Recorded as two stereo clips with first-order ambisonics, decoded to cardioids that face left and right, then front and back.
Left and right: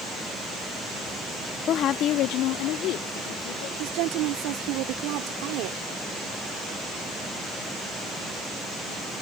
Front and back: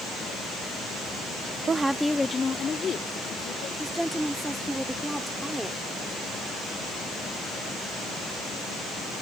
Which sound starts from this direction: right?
A woman speaking, at 3.8 s.